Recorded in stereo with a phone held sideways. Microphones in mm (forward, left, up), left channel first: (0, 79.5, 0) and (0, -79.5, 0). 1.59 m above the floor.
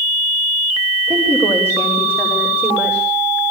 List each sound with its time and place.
1.1 s a woman speaking: 15° right (ahead or behind), 5 m; by 3.4 s centre (ahead or behind), 5 m